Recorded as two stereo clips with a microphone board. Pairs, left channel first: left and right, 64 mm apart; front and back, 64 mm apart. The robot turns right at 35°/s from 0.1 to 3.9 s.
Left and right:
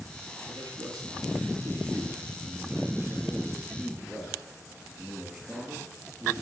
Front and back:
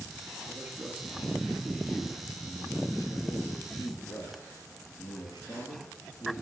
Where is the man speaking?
125° right, 8 m; by 6.3 s 5° right, 8 m.